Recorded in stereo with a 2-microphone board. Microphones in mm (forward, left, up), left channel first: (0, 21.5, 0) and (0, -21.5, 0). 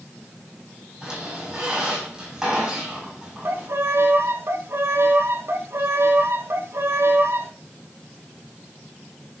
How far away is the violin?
About 0.8 m.